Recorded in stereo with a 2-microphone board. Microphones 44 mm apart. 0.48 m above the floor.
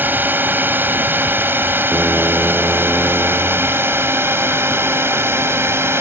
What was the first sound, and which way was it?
A drone, 45° right (ahead or behind).